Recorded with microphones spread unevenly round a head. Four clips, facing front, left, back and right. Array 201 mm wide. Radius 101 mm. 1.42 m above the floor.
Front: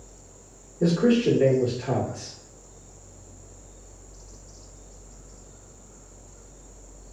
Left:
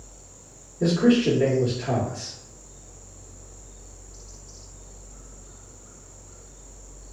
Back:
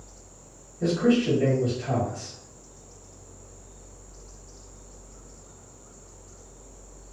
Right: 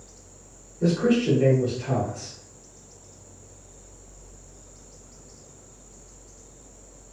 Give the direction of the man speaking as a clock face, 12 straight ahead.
11 o'clock.